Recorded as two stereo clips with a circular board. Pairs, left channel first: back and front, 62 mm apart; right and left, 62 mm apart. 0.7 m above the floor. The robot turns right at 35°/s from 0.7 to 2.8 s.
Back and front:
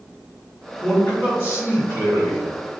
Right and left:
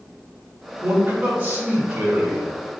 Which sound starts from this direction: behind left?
A man speaking, at 0.8 s.